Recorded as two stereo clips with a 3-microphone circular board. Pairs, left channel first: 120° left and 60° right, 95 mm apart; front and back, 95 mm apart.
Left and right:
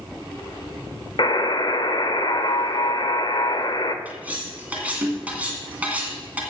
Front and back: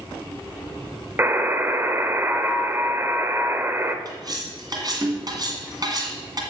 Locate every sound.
1.2 s a buzzer: 120° left, 0.9 m
4.0 s cutlery clinking: 135° right, 2 m